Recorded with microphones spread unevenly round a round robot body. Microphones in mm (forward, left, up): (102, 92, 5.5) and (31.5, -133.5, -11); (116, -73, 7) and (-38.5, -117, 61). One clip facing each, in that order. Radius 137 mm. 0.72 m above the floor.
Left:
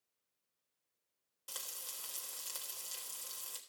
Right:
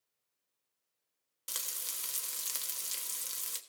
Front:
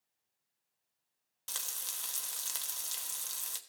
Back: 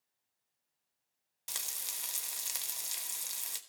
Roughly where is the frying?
Right.